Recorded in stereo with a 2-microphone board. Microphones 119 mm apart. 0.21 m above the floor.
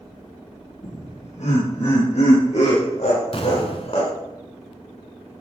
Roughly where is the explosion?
Left.